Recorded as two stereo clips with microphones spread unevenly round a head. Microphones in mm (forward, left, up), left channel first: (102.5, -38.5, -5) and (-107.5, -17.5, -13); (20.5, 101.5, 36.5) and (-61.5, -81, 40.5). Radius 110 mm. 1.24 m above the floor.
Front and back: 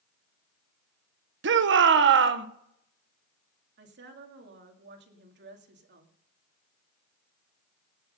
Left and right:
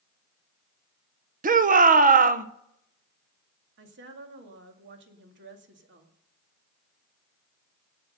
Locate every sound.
1.4 s a shout: 160° right, 1.2 m
3.8 s a woman speaking: 150° right, 2 m